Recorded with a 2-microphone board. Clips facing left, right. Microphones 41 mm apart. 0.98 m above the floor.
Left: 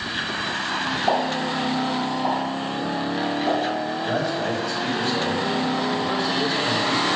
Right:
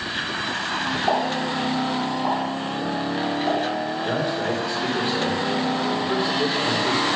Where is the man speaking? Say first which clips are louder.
Even; 15° right (ahead or behind), 1.9 m.